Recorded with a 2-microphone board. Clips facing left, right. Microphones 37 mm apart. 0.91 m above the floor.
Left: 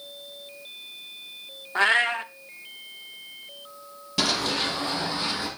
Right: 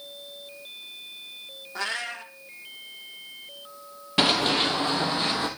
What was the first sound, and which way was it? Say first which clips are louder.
A cat meowing: left 10 dB; 40° left (ahead or behind).